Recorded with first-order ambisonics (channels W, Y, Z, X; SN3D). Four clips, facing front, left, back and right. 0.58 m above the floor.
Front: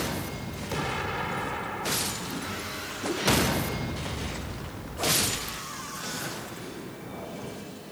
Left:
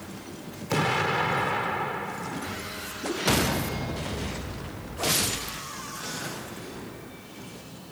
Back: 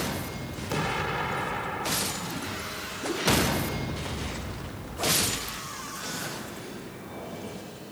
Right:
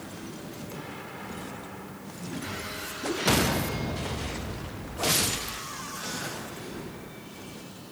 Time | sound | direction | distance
0.7 | an explosion | 95° left | ?